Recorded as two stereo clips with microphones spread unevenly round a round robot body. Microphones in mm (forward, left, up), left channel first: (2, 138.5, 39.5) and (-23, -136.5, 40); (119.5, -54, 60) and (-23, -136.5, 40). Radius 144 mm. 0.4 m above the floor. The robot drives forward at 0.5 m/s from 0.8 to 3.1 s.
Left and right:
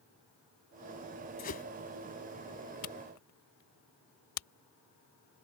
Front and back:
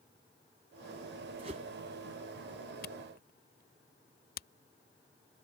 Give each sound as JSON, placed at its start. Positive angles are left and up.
{"t": 1.4, "sound": "a whoosh", "azimuth_deg": 145}
{"t": 2.8, "sound": "a camera shutter", "azimuth_deg": 65}